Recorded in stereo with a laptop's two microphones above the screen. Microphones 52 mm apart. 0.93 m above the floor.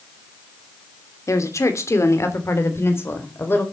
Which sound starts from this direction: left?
A woman speaking, at 1.3 s.